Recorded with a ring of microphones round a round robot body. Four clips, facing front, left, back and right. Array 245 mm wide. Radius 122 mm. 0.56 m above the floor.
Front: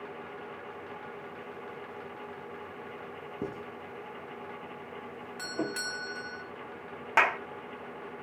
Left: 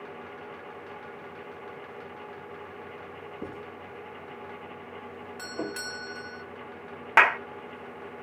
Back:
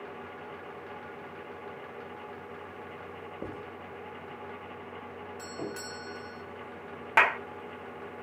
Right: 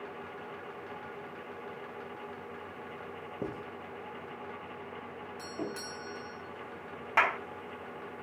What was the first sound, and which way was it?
Writing, 35° right.